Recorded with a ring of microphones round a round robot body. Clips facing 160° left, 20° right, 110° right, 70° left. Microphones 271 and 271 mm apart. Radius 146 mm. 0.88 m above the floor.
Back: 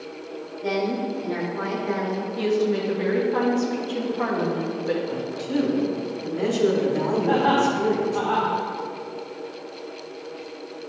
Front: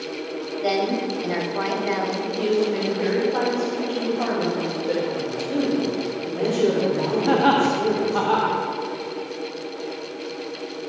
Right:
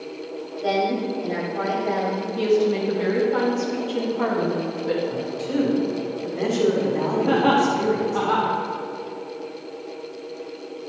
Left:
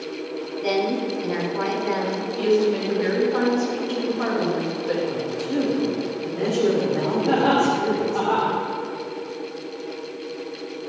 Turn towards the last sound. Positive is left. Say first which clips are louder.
# front 4 dB, even
turn(degrees=-50)